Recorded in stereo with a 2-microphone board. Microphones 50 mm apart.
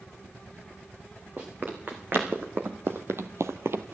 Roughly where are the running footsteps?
Right.